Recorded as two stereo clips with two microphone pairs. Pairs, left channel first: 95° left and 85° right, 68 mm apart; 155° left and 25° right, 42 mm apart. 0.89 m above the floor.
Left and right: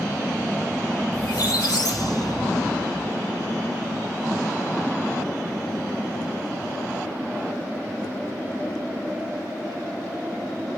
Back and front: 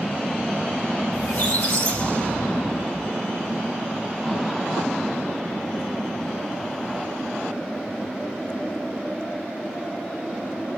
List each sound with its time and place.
1.1 s a squeak: 105° left, 2.5 m